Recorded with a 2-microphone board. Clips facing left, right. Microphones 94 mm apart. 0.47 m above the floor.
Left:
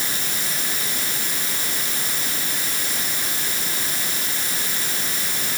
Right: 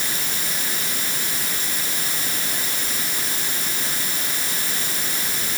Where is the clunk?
I don't hear a clunk.